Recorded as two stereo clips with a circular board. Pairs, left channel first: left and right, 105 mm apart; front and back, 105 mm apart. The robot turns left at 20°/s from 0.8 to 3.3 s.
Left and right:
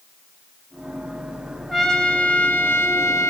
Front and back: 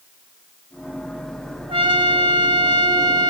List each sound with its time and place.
1.7 s a trumpet: 175° left, 0.7 m; by 3.3 s 145° left, 0.7 m